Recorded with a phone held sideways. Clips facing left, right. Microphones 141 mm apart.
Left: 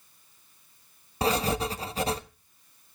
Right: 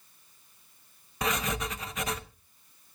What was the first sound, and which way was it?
Writing, 35° left (ahead or behind).